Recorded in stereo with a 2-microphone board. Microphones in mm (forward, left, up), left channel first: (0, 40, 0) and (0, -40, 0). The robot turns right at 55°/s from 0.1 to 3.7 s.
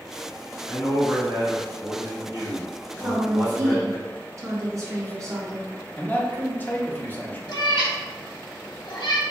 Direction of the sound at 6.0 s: 25° left (ahead or behind).